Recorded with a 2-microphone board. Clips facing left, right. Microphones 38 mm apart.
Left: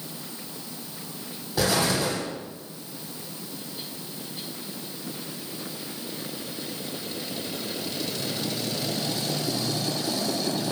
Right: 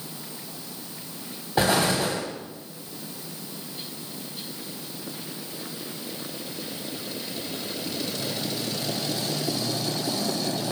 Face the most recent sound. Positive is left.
turn(degrees=-35)  # may be behind; listen again after turning